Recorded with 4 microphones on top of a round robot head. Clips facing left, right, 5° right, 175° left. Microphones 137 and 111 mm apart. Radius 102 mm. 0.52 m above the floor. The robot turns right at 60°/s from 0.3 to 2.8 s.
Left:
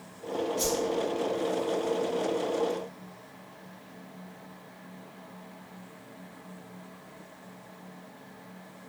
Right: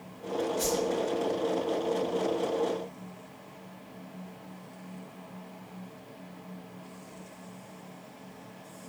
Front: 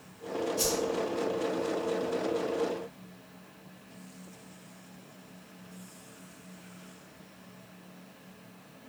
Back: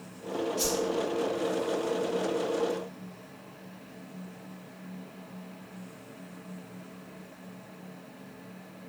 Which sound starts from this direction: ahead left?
A whoosh, at 0.6 s.